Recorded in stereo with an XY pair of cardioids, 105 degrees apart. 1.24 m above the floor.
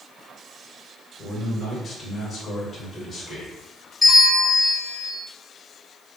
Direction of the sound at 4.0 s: 10° left.